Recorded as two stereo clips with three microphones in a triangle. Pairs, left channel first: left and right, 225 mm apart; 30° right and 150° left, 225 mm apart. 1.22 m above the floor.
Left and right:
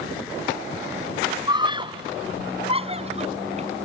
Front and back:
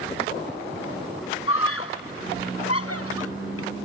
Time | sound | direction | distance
1.5 | a scream | 20° right | ?